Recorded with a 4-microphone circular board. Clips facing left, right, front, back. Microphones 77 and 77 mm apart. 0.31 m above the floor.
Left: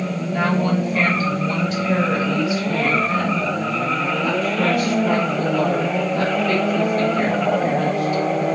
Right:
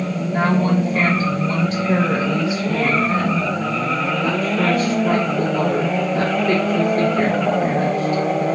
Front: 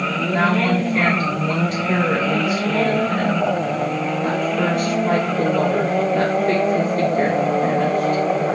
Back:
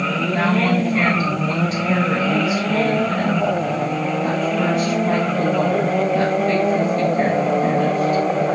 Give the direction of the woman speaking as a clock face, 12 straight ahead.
2 o'clock.